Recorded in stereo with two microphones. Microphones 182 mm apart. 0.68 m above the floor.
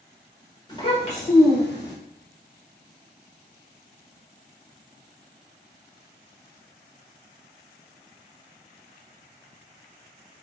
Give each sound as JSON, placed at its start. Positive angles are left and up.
{"t": 0.7, "sound": "a child speaking", "side_deg": 25, "distance_m": 1.3}